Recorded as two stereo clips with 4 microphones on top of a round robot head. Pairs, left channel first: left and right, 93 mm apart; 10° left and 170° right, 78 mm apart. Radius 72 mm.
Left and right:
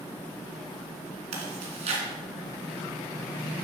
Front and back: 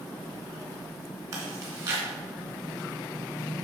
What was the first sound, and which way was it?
Chewing, 105° right.